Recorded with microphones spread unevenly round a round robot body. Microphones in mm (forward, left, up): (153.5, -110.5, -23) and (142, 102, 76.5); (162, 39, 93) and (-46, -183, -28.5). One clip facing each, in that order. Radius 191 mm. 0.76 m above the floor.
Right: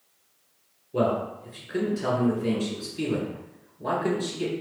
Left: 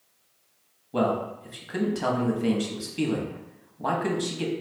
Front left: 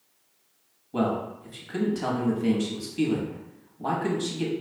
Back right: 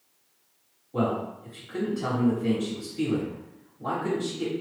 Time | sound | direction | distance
0.9 | a man speaking | 105° left | 1.0 m